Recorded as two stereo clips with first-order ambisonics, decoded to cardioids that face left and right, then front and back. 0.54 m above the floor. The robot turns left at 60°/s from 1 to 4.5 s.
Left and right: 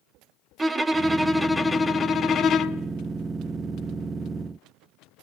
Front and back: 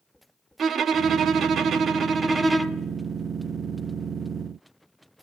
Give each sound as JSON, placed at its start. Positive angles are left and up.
{"t": 0.6, "sound": "a violin", "azimuth_deg": -150, "distance_m": 0.8}